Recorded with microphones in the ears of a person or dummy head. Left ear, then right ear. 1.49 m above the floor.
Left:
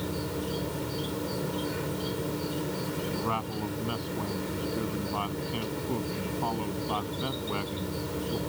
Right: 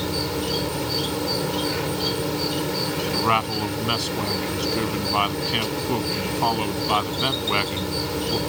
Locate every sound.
0.0 s an insect: 35° right (ahead or behind)
3.1 s a man speaking: 70° right (ahead or behind)